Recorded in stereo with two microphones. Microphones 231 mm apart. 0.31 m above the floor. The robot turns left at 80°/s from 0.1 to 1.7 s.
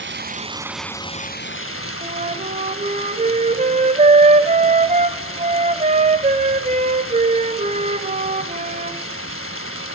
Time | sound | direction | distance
0.0 | running water | 125° right | 1.1 m
2.0 | a flute | 30° right (ahead or behind) | 1.4 m